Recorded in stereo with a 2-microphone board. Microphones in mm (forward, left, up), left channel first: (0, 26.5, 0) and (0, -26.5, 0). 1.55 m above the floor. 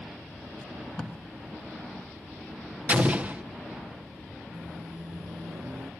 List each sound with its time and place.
0.6 s tape being pulled: 10° left (ahead or behind), 2.5 m
2.9 s an explosion: 25° right (ahead or behind), 0.9 m
4.5 s a microwave: 50° right (ahead or behind), 0.8 m